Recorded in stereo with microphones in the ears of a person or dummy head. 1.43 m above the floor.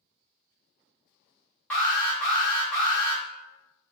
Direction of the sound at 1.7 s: 10° left (ahead or behind).